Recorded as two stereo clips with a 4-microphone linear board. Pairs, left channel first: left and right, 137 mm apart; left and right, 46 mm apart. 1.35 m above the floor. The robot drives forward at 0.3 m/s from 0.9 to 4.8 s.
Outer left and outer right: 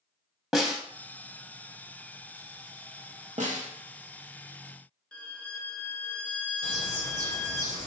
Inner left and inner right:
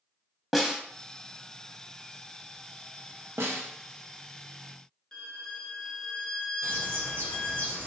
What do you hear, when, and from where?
0.5 s a snare drum: centre (ahead or behind), 0.7 m
3.4 s a snare drum: 65° right (ahead or behind), 0.8 m; by 3.7 s 70° right (ahead or behind), 0.8 m
5.1 s a violin: 10° left (ahead or behind), 0.7 m
6.6 s a bird: 65° right (ahead or behind), 1.7 m